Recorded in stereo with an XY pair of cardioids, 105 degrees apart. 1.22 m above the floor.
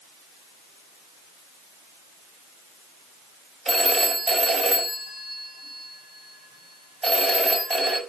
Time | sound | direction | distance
3.6 | a phone ringing | 20° right | 4.5 m